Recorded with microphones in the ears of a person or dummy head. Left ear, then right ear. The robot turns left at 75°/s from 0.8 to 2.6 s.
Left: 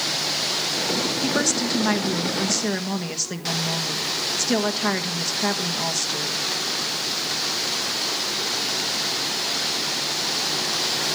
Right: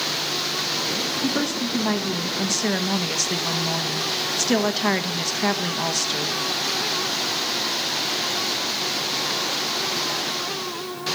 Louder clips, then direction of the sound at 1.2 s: Left 2 dB; 95° left.